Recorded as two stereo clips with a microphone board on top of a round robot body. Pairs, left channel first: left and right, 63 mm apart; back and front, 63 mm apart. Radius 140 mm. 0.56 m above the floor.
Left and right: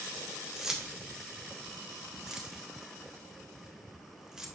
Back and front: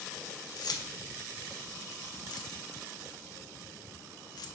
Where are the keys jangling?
170° right, 1.1 m.